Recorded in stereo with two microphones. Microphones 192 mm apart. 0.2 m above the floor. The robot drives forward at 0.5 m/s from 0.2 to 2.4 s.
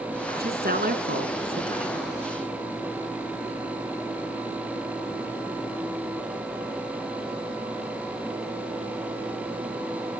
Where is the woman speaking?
55° right (ahead or behind), 2.5 m; by 2.1 s 50° right (ahead or behind), 3 m.